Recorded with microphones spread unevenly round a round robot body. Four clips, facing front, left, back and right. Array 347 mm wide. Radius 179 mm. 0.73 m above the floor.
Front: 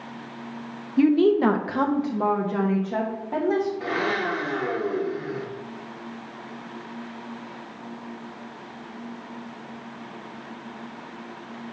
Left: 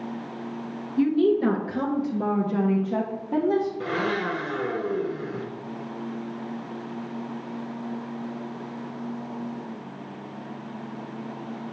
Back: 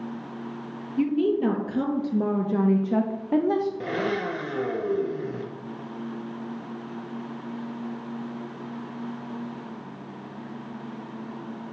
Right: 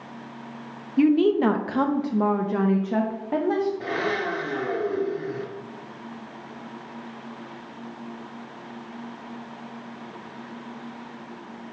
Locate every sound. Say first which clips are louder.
1.0 s a woman speaking: right 2 dB, front 5 dB; 35° right, 1.0 m; by 3.7 s 175° left, 1.6 m
3.8 s a blender: even, front 1 dB; 160° left, 1.2 m